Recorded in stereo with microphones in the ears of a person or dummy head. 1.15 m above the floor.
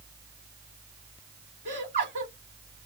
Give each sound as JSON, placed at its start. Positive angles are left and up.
{"t": 1.6, "sound": "laughter", "side_deg": -40, "distance_m": 2.0}